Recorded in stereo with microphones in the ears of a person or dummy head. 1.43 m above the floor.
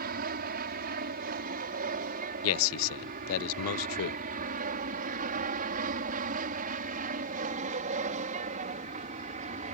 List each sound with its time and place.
0.0 s an aircraft: 50° right (ahead or behind); by 9.7 s 40° right (ahead or behind)
2.4 s a man speaking: 75° left (ahead or behind)